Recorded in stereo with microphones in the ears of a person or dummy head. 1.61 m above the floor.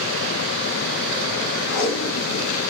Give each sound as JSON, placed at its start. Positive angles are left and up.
{"t": 1.7, "sound": "tape being pulled", "side_deg": 90, "distance_m": 2.5}